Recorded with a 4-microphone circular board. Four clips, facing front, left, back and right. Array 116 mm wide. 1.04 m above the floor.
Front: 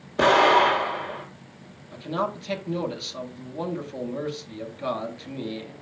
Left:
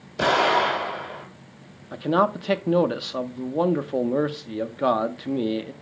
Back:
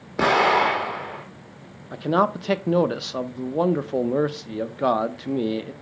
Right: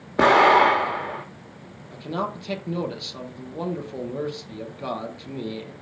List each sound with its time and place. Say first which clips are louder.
0.2 s an explosion: right 5 dB, front 1 dB; 100° right, 1.7 m
1.9 s a man speaking: left 8 dB, back 7 dB; 140° left, 0.7 m